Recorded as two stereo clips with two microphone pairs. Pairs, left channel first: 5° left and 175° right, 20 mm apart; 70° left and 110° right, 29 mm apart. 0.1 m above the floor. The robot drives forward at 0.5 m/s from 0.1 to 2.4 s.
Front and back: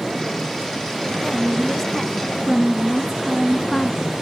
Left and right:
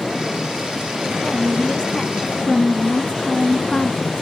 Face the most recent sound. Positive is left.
turn(degrees=110)